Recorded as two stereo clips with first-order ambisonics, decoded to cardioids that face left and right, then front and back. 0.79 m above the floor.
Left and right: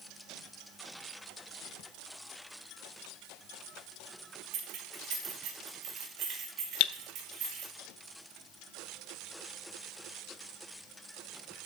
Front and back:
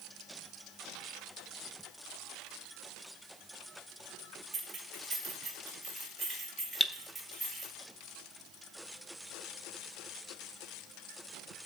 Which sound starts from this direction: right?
Keys jangling, at 4.5 s.